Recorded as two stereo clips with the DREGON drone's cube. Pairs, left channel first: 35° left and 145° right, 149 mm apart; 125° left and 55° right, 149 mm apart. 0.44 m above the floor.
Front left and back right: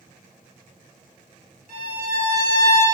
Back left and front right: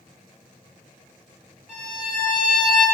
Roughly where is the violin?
Behind right.